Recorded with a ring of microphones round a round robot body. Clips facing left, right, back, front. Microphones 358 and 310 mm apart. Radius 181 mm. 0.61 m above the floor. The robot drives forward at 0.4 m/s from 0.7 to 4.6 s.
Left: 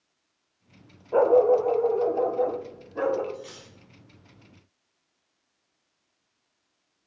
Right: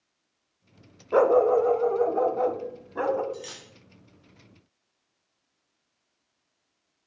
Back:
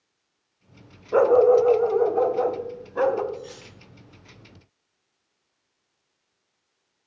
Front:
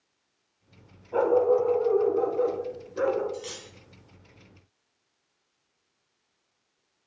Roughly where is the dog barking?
Behind right.